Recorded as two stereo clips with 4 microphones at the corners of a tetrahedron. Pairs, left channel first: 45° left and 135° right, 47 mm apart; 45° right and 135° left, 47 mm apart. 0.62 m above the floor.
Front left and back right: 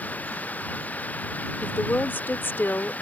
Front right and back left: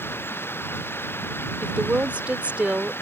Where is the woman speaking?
80° left.